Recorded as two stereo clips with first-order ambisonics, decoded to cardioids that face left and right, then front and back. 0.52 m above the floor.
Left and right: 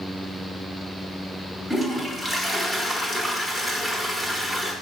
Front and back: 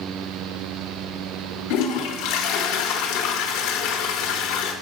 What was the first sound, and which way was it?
A toilet flushing, 5° left.